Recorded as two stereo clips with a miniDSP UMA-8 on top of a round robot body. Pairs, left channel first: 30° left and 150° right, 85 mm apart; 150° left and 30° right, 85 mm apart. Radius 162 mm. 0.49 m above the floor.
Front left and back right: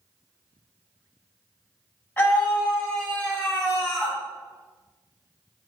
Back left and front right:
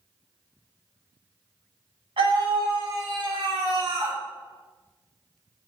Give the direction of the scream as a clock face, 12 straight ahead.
1 o'clock.